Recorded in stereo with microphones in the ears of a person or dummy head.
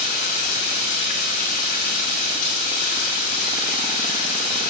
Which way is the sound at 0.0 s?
45° left (ahead or behind).